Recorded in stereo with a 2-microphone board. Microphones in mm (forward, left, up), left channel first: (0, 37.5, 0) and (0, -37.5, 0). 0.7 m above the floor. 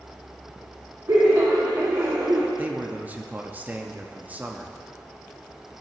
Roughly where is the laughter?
Right.